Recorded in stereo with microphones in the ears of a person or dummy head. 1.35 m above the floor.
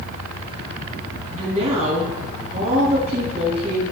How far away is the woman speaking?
About 3 m.